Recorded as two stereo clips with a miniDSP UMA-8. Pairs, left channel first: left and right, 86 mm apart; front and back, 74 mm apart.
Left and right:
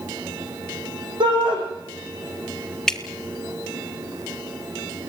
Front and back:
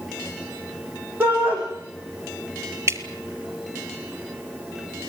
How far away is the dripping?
About 1.3 m.